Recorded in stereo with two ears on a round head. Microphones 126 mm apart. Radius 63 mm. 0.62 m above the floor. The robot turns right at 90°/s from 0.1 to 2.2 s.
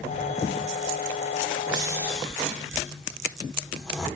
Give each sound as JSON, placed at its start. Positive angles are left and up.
{"t": 1.7, "sound": "snoring", "side_deg": -35, "distance_m": 1.7}